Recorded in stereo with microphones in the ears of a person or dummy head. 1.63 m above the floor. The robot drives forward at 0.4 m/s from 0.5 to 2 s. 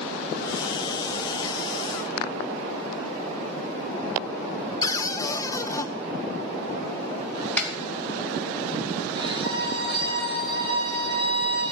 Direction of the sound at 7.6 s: 10° left (ahead or behind).